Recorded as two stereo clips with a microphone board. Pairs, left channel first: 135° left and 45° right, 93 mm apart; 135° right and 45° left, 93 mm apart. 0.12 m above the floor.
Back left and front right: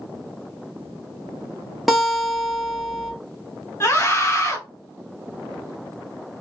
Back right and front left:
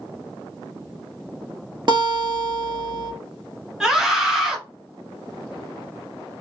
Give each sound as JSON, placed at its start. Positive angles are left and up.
{"t": 1.9, "sound": "a guitar", "azimuth_deg": 45, "distance_m": 1.0}
{"t": 3.8, "sound": "a scream", "azimuth_deg": 125, "distance_m": 1.2}